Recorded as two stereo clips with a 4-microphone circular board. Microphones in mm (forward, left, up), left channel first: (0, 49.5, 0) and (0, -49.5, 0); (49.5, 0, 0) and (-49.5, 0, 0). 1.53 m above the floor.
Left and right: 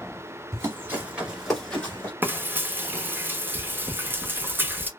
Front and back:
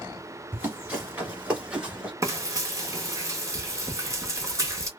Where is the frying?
145° right, 0.8 m.